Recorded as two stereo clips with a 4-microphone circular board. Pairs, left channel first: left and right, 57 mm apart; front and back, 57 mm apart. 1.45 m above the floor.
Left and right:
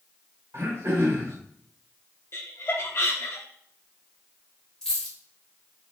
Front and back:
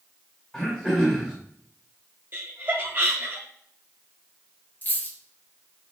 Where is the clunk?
No clunk in this recording.